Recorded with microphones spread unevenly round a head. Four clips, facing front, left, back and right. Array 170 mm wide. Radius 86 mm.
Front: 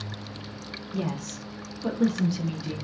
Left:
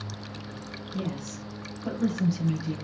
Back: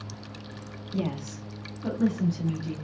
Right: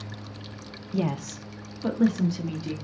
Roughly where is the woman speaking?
Right.